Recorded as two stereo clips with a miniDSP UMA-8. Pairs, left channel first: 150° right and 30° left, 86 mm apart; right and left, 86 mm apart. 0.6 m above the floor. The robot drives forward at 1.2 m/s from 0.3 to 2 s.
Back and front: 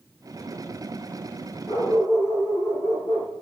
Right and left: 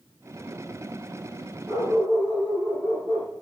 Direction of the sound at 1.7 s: 150° left.